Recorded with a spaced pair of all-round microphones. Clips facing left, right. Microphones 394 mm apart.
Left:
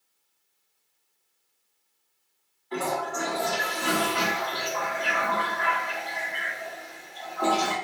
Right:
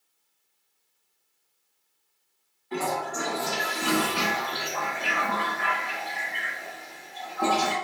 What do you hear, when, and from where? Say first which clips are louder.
2.7 s a toilet flushing: even; 40° right (ahead or behind), 1.2 m